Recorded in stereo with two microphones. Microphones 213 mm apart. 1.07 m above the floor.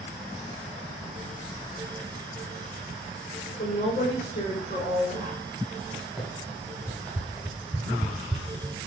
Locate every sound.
3.6 s a woman speaking: 35° left (ahead or behind), 4.5 m
6.2 s running footsteps: centre (ahead or behind), 5 m